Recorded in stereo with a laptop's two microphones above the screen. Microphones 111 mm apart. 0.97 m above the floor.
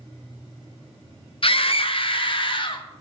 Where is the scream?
55° left (ahead or behind), 0.6 m; by 2.9 s 50° left (ahead or behind), 1.2 m.